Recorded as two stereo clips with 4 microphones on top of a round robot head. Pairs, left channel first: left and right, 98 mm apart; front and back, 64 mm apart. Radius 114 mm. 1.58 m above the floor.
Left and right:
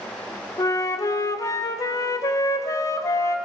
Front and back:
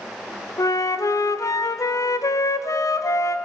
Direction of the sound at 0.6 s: 35° left.